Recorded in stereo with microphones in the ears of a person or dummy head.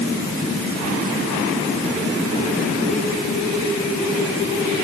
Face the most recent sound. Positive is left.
No sound to turn to.